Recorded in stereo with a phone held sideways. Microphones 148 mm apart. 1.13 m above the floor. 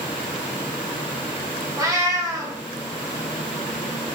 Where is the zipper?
I don't hear a zipper.